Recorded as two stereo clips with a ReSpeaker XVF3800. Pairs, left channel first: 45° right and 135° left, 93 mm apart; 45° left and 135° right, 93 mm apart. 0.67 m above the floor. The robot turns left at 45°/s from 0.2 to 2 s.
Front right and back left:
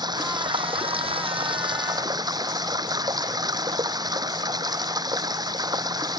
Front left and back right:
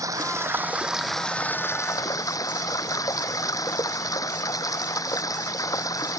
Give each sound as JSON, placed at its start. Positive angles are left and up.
{"t": 0.0, "sound": "running water", "azimuth_deg": 175}